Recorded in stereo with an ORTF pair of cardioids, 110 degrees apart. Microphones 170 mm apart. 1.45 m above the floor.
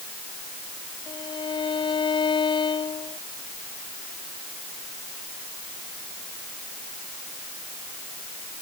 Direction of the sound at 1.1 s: 30° left.